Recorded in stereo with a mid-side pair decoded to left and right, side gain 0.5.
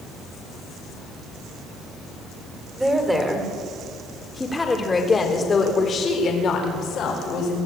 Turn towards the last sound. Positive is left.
turn(degrees=70)